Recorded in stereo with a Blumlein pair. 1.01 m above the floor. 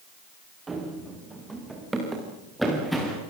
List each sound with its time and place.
0.7 s running footsteps: 15° right, 6.5 m; by 3.2 s straight ahead, 7 m